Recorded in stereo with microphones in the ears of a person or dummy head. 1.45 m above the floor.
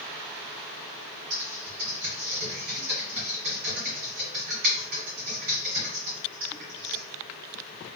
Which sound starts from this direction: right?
Typing on a keyboard, at 1.3 s.